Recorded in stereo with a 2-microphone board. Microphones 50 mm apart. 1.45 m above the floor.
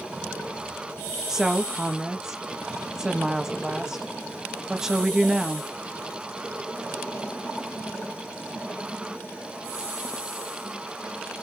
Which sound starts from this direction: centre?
A woman speaking, at 1.3 s.